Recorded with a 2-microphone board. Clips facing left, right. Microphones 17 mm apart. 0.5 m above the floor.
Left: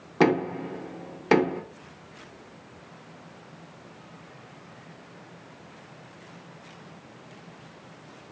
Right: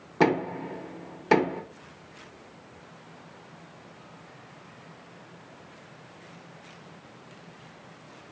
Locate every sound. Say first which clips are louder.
0.2 s knocking: left 2 dB; 5° left (ahead or behind), 0.7 m